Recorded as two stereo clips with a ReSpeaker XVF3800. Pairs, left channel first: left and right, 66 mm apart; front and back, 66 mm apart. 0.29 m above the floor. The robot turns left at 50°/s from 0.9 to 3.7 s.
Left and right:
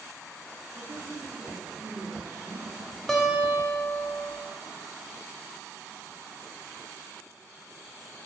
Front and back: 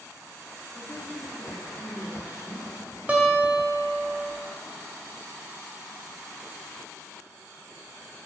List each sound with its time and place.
0.8 s a woman speaking: 55° right, 2 m; by 3.0 s 160° right, 2 m
3.1 s a guitar: 165° left, 1.0 m; by 4.3 s 135° left, 1.0 m